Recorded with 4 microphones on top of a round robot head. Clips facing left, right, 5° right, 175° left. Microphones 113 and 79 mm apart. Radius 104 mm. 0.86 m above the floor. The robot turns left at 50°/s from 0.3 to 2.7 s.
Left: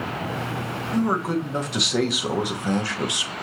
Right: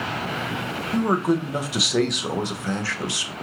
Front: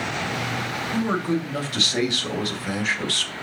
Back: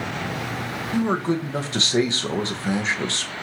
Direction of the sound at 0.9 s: 130° right.